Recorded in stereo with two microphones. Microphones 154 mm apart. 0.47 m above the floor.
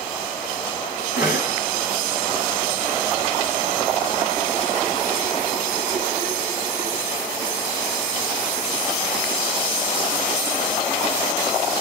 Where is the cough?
75° left (ahead or behind), 5 m.